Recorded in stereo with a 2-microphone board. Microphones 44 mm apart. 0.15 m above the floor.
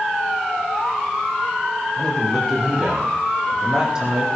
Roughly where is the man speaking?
Centre.